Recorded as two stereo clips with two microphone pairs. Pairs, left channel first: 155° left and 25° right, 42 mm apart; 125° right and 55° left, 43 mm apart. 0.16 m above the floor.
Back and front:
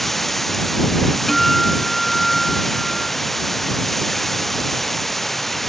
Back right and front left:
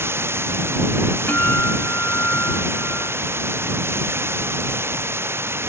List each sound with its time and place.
0.0 s running water: 70° left
1.3 s a guitar: 125° right